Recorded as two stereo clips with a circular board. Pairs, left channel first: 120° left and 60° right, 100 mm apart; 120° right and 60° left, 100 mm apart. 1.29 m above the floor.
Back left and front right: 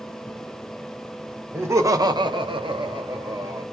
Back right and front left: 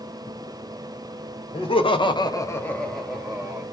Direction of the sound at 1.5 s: 125° right.